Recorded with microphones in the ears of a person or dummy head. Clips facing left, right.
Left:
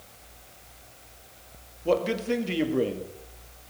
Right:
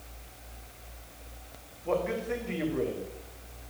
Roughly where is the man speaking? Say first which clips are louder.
Left 5 dB; left.